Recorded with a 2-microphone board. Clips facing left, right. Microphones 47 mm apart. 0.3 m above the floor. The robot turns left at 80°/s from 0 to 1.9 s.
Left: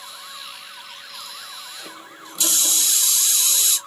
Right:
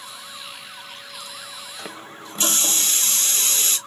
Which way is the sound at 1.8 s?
40° right (ahead or behind).